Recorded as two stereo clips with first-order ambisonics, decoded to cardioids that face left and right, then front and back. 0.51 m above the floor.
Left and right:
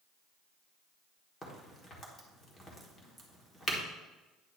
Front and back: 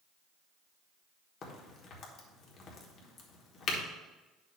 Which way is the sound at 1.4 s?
25° left.